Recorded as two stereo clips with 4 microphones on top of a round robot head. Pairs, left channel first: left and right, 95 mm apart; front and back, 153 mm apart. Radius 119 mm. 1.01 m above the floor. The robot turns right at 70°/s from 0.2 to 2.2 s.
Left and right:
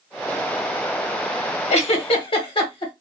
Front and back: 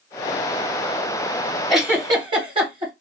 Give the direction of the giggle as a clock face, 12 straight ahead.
9 o'clock.